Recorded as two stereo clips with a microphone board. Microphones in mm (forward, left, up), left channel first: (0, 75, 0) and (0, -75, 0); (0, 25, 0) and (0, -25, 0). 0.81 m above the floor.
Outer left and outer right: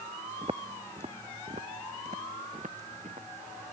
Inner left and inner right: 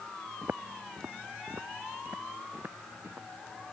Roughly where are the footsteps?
Right.